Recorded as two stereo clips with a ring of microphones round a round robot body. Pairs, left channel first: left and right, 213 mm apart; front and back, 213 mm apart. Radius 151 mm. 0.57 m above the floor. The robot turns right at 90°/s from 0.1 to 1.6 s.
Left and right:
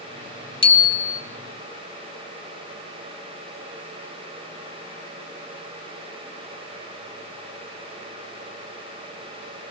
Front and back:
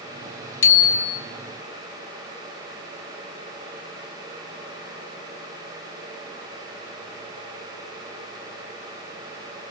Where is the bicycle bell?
25° left, 2 m; by 1.2 s 75° left, 2 m.